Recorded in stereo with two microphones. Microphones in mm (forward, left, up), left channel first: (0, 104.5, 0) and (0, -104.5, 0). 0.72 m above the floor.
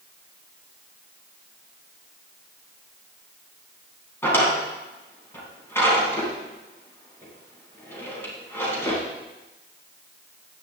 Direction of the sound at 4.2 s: 10° left (ahead or behind).